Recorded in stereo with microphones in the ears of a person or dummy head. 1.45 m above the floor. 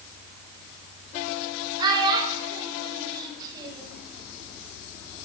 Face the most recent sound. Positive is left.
turn(degrees=-25)  # may be behind; listen again after turning